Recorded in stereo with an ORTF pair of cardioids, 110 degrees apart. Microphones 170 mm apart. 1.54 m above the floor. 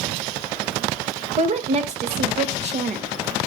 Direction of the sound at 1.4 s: 40° right.